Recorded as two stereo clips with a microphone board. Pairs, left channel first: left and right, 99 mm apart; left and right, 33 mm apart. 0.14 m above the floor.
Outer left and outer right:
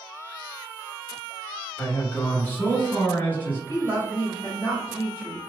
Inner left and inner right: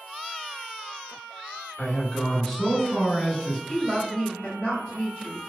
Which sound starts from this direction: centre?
A man speaking, at 1.8 s.